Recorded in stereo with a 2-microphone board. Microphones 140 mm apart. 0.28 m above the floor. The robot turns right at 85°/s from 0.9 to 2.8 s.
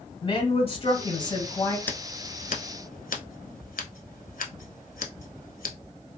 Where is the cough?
No cough in this recording.